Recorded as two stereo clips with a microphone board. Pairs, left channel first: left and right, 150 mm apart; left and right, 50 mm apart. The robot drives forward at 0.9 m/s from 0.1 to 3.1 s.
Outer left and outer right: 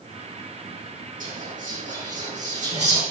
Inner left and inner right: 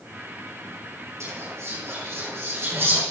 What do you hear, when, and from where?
1.2 s whispering: 60° right (ahead or behind), 6.5 m; by 3.0 s 50° right (ahead or behind), 7 m